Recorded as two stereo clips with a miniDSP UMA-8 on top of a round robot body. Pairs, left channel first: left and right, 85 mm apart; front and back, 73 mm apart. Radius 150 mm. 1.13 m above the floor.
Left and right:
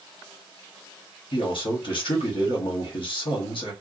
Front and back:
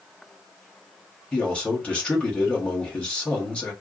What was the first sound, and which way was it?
A man speaking, 75° left.